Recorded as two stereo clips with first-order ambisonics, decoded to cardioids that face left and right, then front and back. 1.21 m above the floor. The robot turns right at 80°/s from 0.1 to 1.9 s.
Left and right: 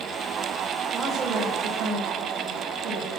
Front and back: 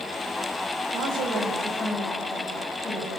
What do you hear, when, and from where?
0.9 s a woman speaking: 170° right, 7 m; by 3.1 s 95° right, 7 m